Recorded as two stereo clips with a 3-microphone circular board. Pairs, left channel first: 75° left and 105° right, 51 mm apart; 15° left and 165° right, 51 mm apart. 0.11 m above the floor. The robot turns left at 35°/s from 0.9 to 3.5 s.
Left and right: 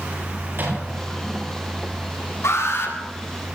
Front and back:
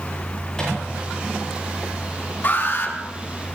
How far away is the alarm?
About 6.5 m.